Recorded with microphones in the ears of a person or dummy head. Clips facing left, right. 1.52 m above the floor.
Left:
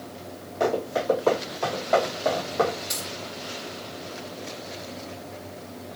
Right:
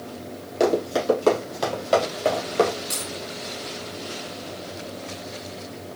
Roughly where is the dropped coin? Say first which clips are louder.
Right 2 dB; centre.